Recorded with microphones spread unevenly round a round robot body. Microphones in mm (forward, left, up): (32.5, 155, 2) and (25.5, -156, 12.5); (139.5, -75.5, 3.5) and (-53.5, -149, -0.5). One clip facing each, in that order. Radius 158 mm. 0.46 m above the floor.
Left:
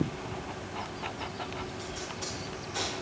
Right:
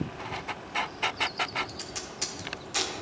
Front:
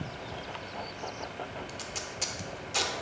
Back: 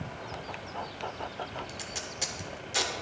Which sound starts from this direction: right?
Tape being pulled, at 1.7 s.